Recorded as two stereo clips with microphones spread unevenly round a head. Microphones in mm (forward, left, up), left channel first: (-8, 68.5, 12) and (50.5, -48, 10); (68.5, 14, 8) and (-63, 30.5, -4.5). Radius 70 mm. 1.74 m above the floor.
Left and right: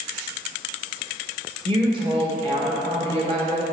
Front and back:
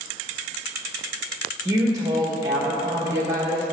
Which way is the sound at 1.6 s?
120° right.